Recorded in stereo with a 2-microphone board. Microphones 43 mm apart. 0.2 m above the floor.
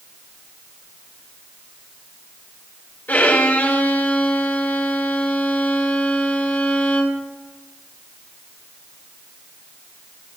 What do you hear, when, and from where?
3.1 s a violin: 50° left (ahead or behind), 3 m